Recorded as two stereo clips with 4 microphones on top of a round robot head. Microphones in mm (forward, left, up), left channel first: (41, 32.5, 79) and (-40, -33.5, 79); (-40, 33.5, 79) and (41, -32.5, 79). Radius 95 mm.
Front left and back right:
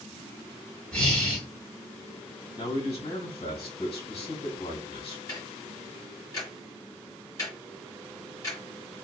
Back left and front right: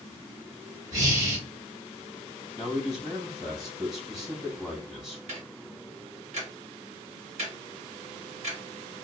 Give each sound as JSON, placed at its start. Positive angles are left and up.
{"t": 0.9, "sound": "breathing", "azimuth_deg": -40, "distance_m": 1.6}
{"t": 2.6, "sound": "a man speaking", "azimuth_deg": 45, "distance_m": 1.6}
{"t": 5.3, "sound": "ticking", "azimuth_deg": -20, "distance_m": 1.0}